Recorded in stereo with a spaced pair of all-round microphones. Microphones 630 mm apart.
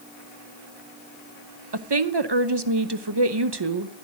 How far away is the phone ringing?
I don't hear a phone ringing.